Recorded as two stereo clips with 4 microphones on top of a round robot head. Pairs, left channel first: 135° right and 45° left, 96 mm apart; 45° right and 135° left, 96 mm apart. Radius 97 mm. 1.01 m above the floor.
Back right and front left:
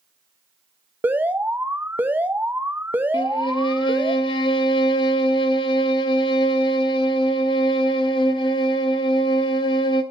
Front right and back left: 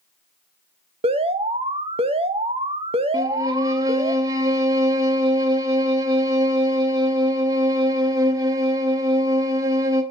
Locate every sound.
1.0 s an alarm: 115° left, 1.1 m
3.1 s a violin: 170° right, 0.7 m